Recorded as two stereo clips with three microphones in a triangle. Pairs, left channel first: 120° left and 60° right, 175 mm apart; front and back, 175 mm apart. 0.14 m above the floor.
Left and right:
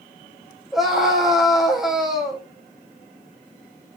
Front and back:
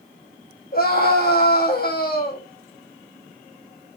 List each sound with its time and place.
0.7 s a scream: 30° left, 5.5 m